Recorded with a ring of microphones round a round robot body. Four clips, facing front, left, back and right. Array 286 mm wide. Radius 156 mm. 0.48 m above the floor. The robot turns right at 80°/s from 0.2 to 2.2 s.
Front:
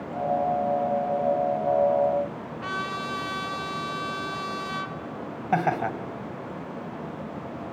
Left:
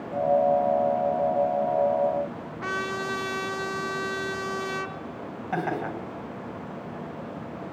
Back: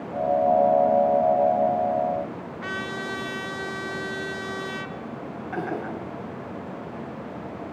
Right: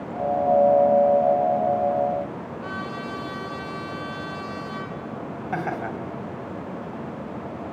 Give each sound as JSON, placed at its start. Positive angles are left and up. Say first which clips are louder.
{"t": 2.6, "sound": "a trumpet", "louder": "left 5 dB, front 1 dB", "azimuth_deg": 105, "distance_m": 1.6}
{"t": 5.5, "sound": "laughter", "louder": "even, front 6 dB", "azimuth_deg": -5, "distance_m": 3.5}